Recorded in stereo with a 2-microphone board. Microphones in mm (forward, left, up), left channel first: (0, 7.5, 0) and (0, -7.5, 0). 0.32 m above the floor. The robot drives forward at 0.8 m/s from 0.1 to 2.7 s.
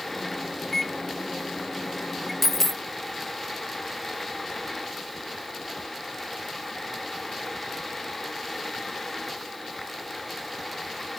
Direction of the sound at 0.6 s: 20° left (ahead or behind).